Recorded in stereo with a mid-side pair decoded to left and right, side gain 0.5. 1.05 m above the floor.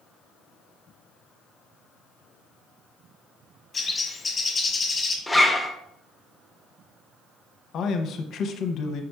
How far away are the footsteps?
I don't hear footsteps.